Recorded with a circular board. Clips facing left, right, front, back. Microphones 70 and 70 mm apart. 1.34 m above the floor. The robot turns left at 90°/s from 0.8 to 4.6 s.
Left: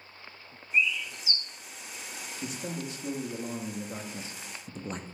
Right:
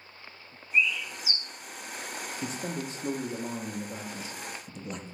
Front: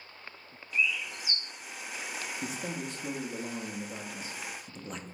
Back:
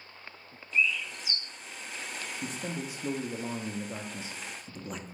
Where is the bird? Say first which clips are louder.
Right 1 dB, back 2 dB; 20° left, 1.1 m; by 1.4 s 35° right, 1.1 m.